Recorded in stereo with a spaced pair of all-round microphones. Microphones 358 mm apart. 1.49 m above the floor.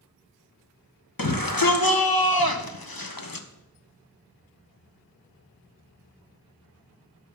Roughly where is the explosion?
No explosion in this recording.